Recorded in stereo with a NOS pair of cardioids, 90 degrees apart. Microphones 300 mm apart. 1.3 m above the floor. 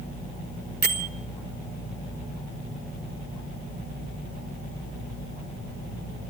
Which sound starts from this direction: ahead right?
A bell, at 0.8 s.